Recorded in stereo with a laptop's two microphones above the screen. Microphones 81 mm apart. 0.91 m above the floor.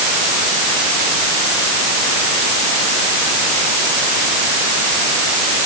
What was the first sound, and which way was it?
Only background noise.